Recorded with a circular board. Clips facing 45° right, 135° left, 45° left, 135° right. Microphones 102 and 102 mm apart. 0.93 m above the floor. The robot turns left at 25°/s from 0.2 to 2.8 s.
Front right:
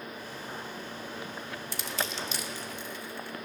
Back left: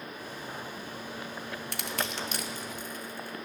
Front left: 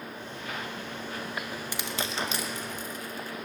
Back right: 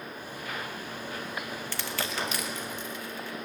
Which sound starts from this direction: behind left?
Crushing, at 1.7 s.